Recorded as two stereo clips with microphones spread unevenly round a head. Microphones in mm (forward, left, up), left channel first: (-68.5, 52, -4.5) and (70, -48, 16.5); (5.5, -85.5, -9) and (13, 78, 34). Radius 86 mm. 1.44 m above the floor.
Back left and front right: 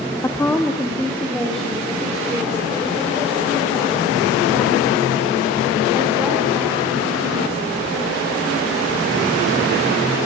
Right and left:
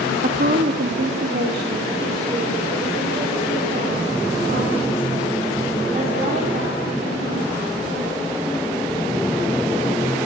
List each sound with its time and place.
0.2 s a woman speaking: 65° left, 1.9 m; by 8.2 s 45° left, 11 m